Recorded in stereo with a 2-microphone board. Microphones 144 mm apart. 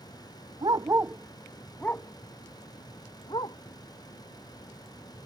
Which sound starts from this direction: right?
A dog barking, at 0.6 s.